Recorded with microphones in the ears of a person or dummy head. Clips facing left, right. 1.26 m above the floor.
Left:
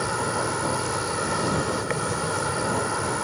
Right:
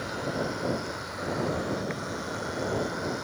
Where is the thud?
I don't hear a thud.